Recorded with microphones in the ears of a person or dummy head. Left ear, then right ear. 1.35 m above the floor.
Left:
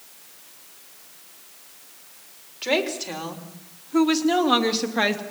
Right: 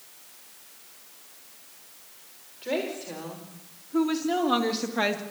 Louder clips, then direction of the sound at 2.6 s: Left 6 dB; 45° left (ahead or behind).